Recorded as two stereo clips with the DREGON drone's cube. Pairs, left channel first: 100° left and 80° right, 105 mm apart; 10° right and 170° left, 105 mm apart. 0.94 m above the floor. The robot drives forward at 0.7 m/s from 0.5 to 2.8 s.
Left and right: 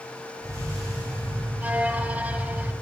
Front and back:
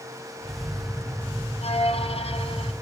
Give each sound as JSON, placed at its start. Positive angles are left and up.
{"t": 1.6, "sound": "a violin", "azimuth_deg": 0, "distance_m": 2.5}